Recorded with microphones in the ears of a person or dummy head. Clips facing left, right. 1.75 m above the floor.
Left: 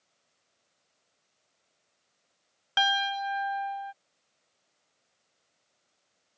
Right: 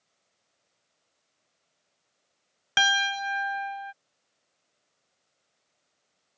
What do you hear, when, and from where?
2.8 s a piano: 40° right (ahead or behind)